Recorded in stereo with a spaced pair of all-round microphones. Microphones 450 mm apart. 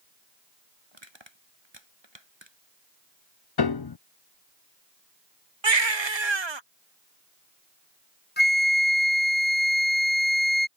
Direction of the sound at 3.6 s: 55° left (ahead or behind).